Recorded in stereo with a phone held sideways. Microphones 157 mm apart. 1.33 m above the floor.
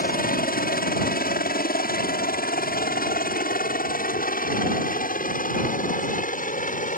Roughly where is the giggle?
No giggle in this recording.